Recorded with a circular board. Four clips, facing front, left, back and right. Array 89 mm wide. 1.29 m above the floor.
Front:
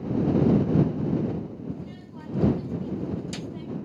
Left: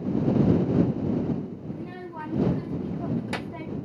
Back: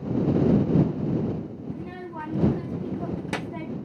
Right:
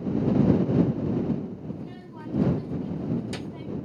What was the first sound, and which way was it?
A child speaking, 145° left.